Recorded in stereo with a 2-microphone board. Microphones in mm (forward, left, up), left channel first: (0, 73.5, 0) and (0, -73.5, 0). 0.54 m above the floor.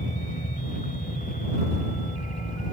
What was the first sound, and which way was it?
A helicopter, 60° left (ahead or behind).